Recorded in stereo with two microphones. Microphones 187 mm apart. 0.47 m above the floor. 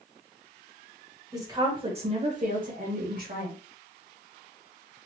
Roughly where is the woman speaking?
Centre.